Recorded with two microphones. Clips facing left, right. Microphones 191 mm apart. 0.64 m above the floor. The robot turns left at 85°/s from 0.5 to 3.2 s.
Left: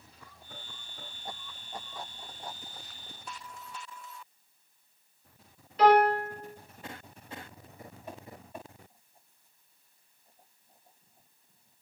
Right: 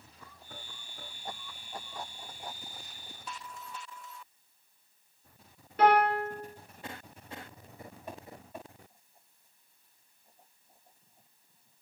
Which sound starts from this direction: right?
A piano, at 5.8 s.